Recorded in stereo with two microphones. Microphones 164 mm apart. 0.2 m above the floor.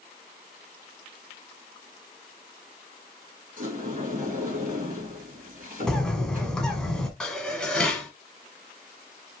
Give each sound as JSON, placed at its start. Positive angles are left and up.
{"t": 3.6, "sound": "a sliding door", "side_deg": -55, "distance_m": 3.0}
{"t": 5.9, "sound": "a bird", "side_deg": 5, "distance_m": 1.1}
{"t": 7.2, "sound": "dishes clattering", "side_deg": 5, "distance_m": 1.1}